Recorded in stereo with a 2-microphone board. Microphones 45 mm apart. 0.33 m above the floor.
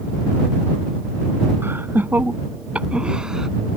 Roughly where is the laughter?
Right.